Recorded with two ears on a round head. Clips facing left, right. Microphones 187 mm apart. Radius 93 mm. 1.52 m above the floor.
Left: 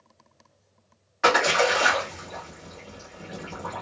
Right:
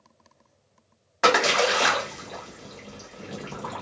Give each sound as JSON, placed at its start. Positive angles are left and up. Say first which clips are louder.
{"t": 1.2, "sound": "a splash", "louder": "even", "side_deg": -65, "distance_m": 1.4}